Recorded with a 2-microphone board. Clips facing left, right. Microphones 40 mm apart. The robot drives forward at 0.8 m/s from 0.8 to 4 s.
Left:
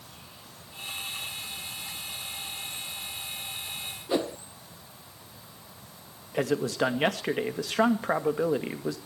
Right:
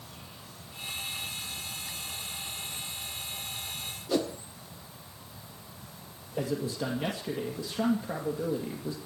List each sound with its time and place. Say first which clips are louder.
4.1 s a whoosh: left 1 dB; 20° left (ahead or behind), 0.7 m
6.3 s a man speaking: left 5 dB; 80° left, 1.9 m